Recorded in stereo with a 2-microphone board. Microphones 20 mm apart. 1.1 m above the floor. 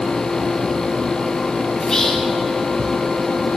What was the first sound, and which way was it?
Whispering, 35° left (ahead or behind).